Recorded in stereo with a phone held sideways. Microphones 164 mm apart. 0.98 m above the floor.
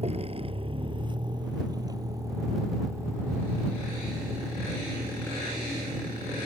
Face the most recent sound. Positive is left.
turn(degrees=-5)  # may be behind; listen again after turning